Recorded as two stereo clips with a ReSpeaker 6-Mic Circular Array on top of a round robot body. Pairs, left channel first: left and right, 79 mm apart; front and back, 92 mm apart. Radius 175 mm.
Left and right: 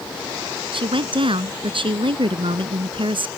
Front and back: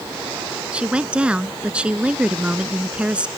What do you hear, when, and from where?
0.7 s a woman speaking: 100° right